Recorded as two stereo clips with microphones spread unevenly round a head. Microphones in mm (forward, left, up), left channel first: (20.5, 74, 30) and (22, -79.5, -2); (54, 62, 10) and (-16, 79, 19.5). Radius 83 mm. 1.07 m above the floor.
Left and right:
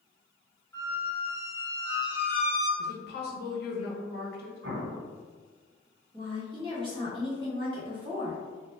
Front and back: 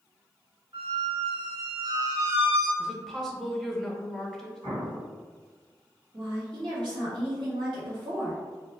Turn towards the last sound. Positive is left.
turn(degrees=-145)